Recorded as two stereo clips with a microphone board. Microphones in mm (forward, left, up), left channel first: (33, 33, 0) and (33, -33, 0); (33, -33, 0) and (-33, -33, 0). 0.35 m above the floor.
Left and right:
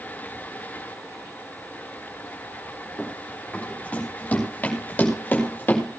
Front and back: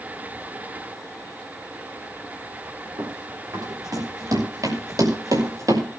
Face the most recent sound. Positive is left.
turn(degrees=150)